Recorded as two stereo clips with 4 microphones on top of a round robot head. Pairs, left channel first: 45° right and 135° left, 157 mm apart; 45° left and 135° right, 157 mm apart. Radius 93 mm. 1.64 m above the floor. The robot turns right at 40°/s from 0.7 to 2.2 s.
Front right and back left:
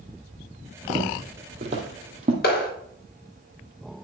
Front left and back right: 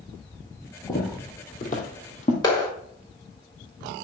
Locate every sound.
0.9 s footsteps: 75° left, 3 m; by 2.3 s 85° left, 3 m
2.4 s a clap: 20° right, 4 m